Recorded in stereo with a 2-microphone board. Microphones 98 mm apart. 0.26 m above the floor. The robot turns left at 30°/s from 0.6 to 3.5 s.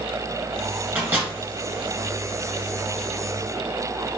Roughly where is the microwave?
Centre.